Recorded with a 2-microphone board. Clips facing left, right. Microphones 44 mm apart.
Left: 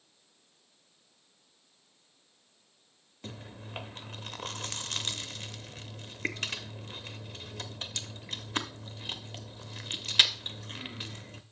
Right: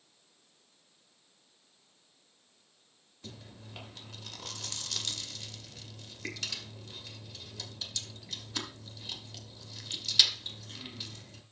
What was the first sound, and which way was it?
Chewing, 40° left (ahead or behind).